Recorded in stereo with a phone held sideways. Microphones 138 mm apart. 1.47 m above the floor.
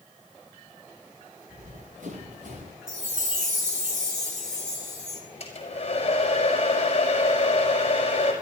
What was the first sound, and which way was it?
Running footsteps, 75° right (ahead or behind).